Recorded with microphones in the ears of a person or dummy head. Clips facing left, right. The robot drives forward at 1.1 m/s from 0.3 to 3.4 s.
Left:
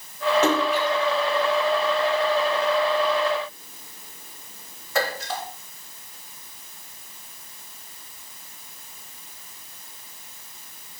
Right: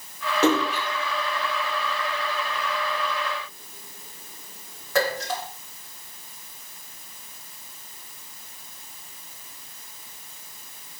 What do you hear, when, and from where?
0.4 s a splash: 75° right (ahead or behind), 5 m; by 5.4 s 50° right (ahead or behind), 6.5 m